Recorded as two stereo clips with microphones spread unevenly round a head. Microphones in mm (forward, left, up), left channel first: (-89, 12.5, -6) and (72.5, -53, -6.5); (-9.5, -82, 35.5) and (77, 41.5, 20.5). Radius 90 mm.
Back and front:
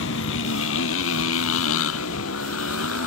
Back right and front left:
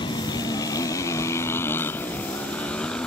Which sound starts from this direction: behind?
A motorcycle, at 0.0 s.